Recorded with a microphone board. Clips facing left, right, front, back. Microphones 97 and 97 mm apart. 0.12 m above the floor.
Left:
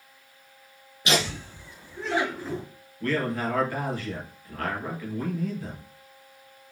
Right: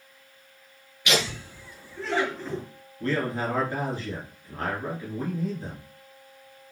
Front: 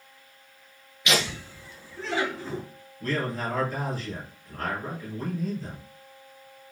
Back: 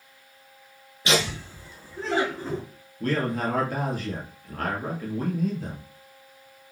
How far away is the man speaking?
About 2 m.